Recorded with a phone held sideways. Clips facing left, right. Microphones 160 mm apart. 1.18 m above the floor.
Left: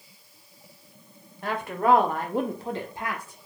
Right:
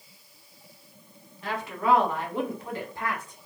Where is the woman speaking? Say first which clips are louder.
Left 3 dB; 55° left (ahead or behind), 0.9 m; by 3.4 s 5° left (ahead or behind), 0.7 m.